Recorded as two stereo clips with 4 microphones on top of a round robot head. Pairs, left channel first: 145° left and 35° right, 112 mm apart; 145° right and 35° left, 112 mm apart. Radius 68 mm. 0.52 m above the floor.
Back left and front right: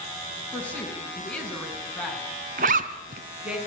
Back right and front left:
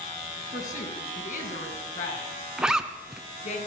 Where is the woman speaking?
140° right, 5.5 m; by 3.6 s 115° right, 5.5 m.